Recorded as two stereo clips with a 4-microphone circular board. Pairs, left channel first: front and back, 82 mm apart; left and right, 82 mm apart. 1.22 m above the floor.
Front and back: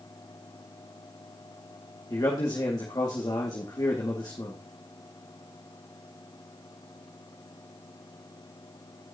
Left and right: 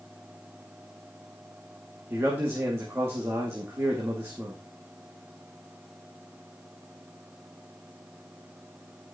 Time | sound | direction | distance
2.1 | a man speaking | 30° right | 2.5 m